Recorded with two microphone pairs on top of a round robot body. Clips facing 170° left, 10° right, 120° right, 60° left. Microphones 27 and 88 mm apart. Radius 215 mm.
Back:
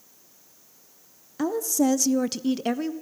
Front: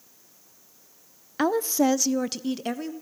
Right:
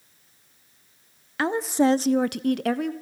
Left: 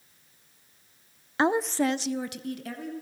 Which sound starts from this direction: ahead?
A woman speaking, at 1.4 s.